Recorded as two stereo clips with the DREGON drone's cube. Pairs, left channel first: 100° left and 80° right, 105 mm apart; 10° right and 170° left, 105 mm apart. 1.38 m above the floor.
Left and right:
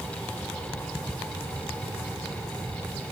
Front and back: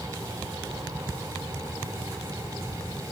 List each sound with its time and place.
Only background noise.